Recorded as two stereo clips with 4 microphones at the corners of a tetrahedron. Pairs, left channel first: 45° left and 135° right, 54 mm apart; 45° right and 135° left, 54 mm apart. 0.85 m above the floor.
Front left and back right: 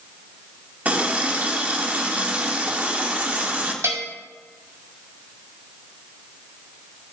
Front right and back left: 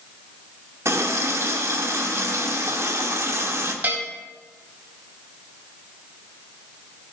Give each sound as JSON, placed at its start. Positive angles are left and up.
{"t": 0.8, "sound": "a running tap", "azimuth_deg": 165, "distance_m": 1.3}
{"t": 3.8, "sound": "a bell", "azimuth_deg": -170, "distance_m": 1.9}